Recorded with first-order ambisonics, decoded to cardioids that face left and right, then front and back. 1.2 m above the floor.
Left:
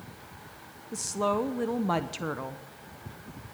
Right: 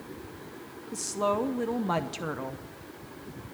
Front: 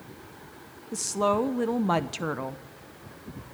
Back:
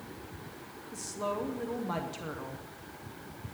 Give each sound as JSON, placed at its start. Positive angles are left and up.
{"t": 0.9, "sound": "a woman speaking", "azimuth_deg": 5, "distance_m": 0.6}